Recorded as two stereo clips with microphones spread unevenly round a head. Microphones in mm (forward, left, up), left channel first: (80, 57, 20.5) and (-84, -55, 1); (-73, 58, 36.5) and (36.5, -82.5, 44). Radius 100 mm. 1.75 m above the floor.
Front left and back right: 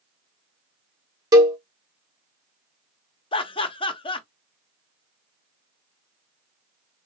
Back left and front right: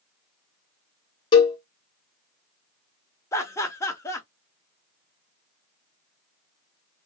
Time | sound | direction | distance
1.3 | a cowbell | 155° left | 1.0 m
3.3 | laughter | 60° left | 0.7 m